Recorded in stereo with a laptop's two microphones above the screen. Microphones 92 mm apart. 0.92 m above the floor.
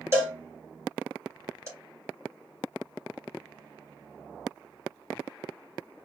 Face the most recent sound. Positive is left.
turn(degrees=-30)  # may be behind; listen again after turning